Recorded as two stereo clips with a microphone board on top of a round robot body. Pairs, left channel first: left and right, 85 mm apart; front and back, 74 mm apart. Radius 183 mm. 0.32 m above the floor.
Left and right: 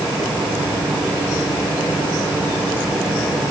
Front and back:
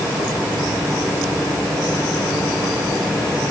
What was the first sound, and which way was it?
Only background noise.